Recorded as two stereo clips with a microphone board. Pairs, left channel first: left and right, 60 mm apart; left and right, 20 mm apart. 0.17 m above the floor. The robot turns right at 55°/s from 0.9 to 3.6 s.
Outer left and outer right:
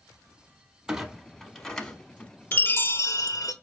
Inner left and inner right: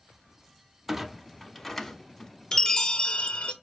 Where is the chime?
30° left, 0.6 m; by 3.5 s 90° left, 0.6 m.